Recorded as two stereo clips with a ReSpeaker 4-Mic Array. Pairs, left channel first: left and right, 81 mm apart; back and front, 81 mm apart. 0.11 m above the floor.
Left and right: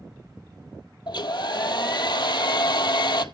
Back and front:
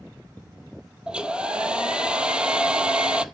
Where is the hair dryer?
75° left, 0.7 m.